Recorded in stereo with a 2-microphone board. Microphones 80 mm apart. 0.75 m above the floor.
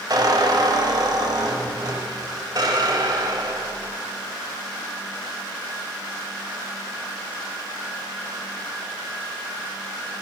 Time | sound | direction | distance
0.1 | a squeak | 55° right (ahead or behind) | 1.5 m